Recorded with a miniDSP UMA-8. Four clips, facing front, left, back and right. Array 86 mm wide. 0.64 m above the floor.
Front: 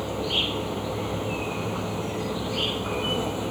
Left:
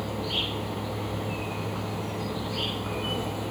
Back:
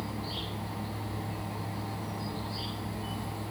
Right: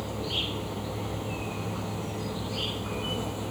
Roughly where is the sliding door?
No sliding door in this recording.